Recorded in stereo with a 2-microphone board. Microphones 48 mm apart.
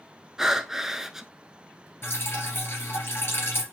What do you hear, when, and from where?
0.4 s breathing: 10° right (ahead or behind), 0.6 m
2.0 s dripping: 55° left (ahead or behind), 2.5 m